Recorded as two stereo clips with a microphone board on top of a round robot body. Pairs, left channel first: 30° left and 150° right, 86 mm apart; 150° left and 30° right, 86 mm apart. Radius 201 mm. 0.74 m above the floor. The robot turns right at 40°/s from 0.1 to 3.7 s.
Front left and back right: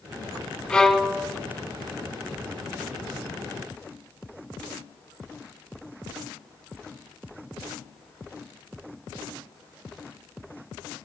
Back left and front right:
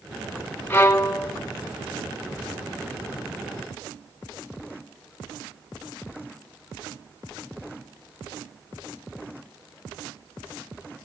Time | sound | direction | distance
0.7 | a violin | 100° left | 1.0 m